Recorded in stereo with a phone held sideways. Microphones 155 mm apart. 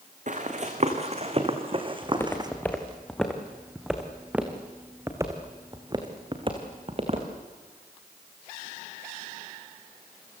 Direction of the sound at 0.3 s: 50° right (ahead or behind).